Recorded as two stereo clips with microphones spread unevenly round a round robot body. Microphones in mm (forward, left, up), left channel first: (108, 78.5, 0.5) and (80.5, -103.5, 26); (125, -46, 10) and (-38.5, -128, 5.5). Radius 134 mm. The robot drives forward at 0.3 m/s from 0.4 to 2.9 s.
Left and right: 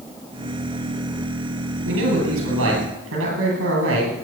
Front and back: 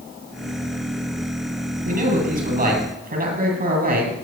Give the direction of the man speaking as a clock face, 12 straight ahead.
4 o'clock.